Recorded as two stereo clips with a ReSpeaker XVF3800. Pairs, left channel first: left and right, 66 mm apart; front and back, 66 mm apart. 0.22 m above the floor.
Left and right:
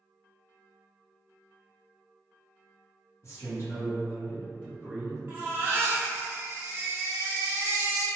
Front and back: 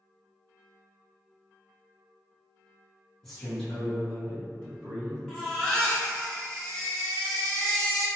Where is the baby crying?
70° right, 0.8 m.